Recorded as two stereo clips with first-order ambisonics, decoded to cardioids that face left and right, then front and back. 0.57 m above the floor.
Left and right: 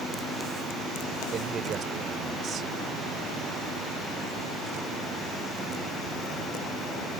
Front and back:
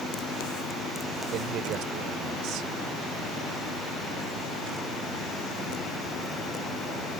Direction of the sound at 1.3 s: 150° right.